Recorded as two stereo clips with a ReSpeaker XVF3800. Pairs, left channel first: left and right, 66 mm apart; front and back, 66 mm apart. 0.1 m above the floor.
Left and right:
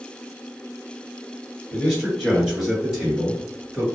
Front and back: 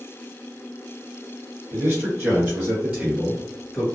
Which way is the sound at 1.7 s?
165° left.